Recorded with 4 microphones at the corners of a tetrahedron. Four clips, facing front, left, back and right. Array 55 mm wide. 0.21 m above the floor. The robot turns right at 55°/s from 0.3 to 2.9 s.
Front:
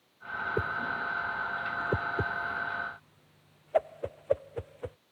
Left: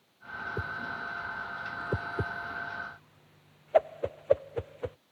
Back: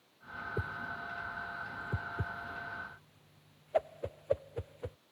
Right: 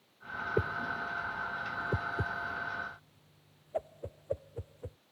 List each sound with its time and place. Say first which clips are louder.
0.6 s a whoosh: right 4 dB, front 7 dB; 55° right; by 5.0 s 75° left